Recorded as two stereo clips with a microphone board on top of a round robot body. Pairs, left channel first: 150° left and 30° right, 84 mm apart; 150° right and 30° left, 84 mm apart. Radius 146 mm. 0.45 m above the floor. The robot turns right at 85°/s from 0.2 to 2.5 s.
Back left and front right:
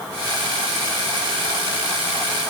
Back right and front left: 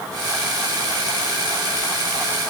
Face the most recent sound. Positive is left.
No sound to turn to.